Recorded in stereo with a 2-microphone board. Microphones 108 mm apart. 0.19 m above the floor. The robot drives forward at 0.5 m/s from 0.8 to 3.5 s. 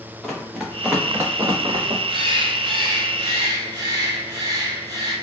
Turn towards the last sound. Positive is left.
turn(degrees=-35)  # may be behind; listen again after turning